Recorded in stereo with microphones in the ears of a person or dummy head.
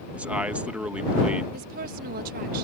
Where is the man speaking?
10° right (ahead or behind).